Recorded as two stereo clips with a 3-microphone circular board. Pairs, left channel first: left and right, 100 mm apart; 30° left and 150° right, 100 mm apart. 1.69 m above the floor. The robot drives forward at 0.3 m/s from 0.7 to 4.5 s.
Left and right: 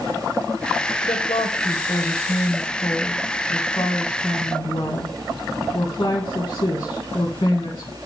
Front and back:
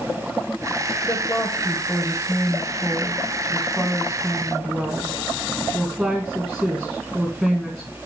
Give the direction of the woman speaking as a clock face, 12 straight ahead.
9 o'clock.